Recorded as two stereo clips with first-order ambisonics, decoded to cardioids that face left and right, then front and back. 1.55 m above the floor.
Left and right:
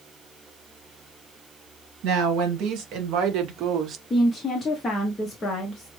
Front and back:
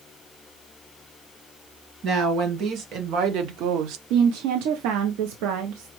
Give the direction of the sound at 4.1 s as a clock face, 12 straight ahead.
7 o'clock.